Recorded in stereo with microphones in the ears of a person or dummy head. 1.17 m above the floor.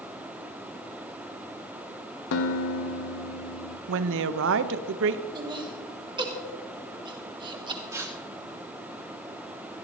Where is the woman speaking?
70° right (ahead or behind), 0.7 m.